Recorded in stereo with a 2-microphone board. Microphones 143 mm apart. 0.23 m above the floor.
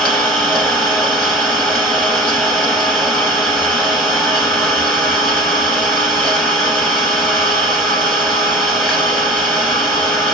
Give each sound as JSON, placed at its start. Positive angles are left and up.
{"t": 0.0, "sound": "an engine running", "side_deg": 10, "distance_m": 1.0}